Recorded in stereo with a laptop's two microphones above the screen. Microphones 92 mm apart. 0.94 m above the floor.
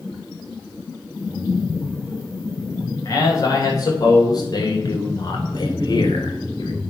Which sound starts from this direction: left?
A man speaking, at 3.0 s.